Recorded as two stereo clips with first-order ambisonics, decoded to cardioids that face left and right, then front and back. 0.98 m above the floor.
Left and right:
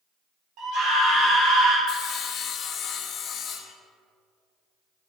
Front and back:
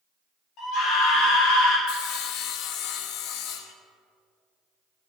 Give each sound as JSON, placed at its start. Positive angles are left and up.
{"t": 0.6, "sound": "a scream", "azimuth_deg": -50, "distance_m": 3.0}
{"t": 1.9, "sound": "sawing", "azimuth_deg": 35, "distance_m": 0.6}